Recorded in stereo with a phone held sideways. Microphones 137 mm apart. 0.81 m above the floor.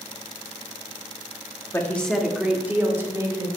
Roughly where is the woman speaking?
Centre.